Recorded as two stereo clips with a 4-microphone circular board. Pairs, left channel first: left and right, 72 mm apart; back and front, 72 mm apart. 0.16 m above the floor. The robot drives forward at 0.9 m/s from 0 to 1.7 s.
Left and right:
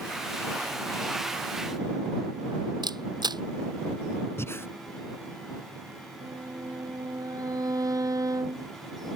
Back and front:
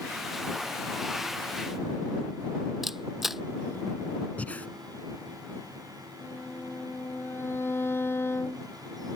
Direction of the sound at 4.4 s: 120° left.